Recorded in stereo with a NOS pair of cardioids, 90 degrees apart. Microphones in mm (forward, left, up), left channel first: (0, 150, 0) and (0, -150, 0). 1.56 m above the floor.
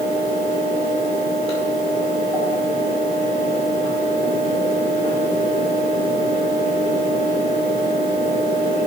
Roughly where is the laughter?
I don't hear laughter.